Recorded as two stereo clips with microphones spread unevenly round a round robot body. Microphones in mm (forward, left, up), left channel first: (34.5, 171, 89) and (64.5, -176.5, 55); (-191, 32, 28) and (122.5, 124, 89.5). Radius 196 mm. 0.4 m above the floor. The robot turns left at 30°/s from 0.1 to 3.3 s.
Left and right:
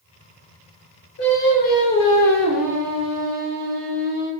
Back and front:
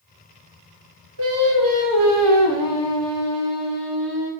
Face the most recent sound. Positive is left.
turn(degrees=-20)